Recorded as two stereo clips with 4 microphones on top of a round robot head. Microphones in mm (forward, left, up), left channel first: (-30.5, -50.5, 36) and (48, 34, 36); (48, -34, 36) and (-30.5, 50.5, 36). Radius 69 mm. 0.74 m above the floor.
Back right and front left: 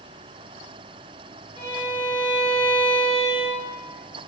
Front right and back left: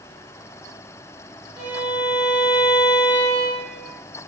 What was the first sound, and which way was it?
A violin, 170° right.